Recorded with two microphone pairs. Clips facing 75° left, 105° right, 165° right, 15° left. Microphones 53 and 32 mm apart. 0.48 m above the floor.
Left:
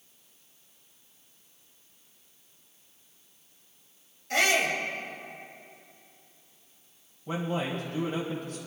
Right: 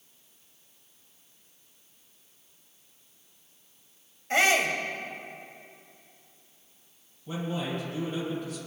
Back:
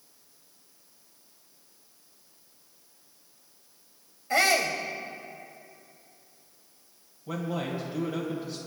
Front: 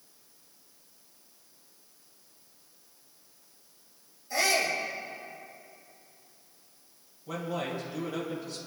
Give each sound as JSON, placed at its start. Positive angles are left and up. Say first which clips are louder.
{"t": 4.3, "sound": "a shout", "louder": "right 2 dB, back 3 dB", "azimuth_deg": -165, "distance_m": 2.0}
{"t": 7.3, "sound": "a man speaking", "louder": "left 2 dB, back 1 dB", "azimuth_deg": 120, "distance_m": 2.0}